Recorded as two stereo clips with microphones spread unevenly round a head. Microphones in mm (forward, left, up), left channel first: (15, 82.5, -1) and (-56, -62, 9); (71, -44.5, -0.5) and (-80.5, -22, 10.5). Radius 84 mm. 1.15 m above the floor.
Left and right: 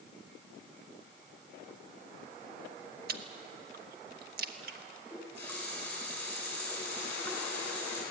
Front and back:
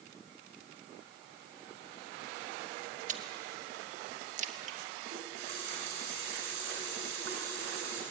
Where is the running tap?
145° left, 8.5 m.